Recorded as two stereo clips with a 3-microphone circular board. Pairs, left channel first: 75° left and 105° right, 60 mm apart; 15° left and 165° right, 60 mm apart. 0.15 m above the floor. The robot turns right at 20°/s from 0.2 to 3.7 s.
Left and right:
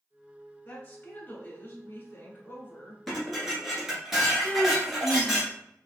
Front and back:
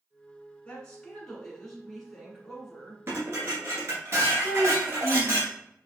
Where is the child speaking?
Straight behind, 1.4 m.